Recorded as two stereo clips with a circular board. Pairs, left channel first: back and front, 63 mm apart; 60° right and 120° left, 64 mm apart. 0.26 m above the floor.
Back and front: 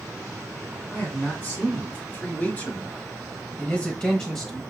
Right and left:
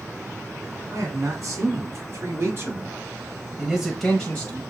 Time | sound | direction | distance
0.9 | a man speaking | 120° left | 2.5 m